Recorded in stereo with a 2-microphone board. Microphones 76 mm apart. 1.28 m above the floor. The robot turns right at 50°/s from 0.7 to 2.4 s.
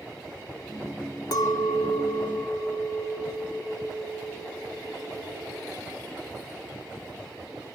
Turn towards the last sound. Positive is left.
turn(degrees=175)